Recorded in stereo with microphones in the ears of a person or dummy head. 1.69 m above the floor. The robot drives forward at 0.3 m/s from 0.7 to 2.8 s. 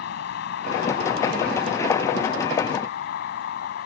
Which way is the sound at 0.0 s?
65° left (ahead or behind).